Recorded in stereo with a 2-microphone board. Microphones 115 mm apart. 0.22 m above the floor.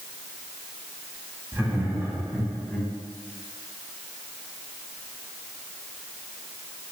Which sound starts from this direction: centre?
Laughter, at 1.5 s.